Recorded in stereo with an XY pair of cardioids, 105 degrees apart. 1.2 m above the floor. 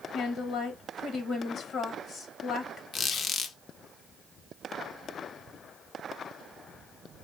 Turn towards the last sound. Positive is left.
turn(degrees=55)